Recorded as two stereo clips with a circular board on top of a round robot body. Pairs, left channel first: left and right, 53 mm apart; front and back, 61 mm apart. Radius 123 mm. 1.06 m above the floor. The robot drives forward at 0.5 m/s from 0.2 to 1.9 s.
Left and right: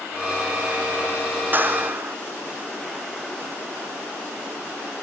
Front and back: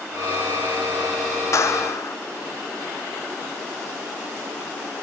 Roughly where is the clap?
Ahead right.